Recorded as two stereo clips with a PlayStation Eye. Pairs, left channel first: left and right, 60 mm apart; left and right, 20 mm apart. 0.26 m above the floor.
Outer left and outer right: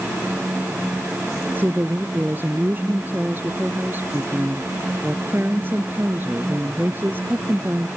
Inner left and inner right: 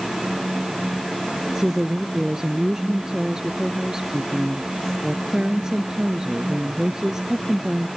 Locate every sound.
1.6 s a woman speaking: 35° right (ahead or behind)